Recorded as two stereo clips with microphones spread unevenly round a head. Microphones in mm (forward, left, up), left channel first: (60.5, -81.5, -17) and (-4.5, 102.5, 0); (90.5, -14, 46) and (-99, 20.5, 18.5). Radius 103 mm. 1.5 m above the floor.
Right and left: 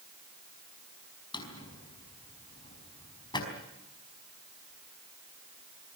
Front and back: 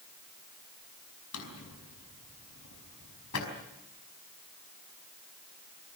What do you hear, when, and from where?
1.3 s a drawer: straight ahead, 5 m